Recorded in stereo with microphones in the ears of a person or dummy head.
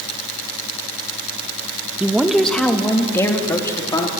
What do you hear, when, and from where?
2.0 s a woman speaking: 10° right (ahead or behind), 1.1 m; by 4.1 s 20° left (ahead or behind), 3 m